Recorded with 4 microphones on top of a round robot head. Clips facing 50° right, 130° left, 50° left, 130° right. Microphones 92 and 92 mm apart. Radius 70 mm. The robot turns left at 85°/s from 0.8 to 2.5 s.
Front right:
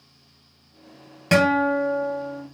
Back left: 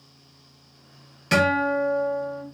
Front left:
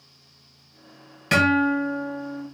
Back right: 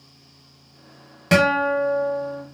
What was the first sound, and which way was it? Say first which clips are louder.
A guitar: front right 2 dB, back right 2 dB; 80° right.